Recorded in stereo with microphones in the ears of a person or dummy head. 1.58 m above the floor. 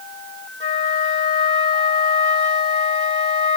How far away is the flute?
About 1.4 m.